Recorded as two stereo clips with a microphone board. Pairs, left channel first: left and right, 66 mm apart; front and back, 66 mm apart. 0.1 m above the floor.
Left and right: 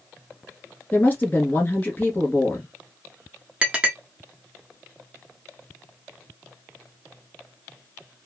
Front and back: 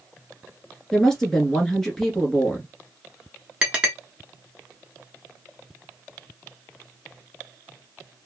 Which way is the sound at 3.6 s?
130° right.